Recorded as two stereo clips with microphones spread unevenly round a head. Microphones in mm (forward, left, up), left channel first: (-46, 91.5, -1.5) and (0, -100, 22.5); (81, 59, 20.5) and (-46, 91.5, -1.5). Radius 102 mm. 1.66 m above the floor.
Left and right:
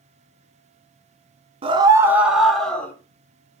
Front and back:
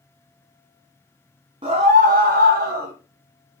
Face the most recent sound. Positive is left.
turn(degrees=-170)